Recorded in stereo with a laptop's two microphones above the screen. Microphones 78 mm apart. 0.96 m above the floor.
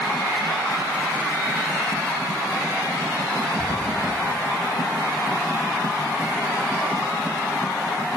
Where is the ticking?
40° left (ahead or behind), 2.5 m.